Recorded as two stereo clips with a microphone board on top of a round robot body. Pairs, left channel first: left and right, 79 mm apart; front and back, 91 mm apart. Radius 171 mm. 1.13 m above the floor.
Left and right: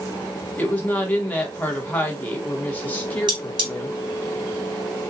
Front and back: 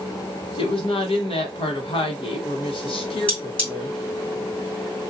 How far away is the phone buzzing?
I don't hear a phone buzzing.